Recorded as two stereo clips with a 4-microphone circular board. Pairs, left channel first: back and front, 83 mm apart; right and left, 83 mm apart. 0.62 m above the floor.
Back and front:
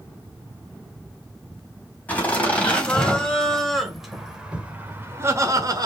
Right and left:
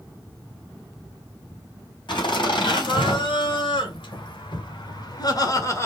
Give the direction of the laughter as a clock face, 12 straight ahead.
4 o'clock.